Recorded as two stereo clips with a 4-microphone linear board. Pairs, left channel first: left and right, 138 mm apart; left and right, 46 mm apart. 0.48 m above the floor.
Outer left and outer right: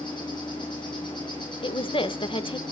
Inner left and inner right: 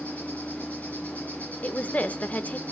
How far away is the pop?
No pop in this recording.